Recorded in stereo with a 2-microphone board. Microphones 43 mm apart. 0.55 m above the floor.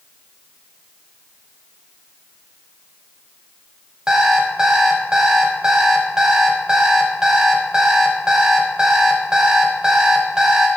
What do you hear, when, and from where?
4.1 s an alarm clock: 15° right (ahead or behind), 1.8 m